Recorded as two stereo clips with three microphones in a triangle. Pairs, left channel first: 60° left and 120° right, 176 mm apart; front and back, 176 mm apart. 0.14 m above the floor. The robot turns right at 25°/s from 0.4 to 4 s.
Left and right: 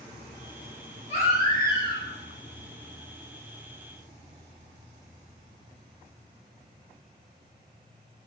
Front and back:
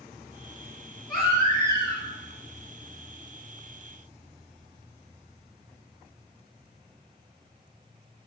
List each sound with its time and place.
1.1 s a baby crying: 15° right, 1.8 m; by 2.0 s 10° left, 1.8 m